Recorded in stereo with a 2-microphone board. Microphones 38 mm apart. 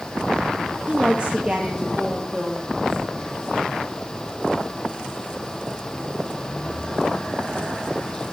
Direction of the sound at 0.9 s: 35° right (ahead or behind).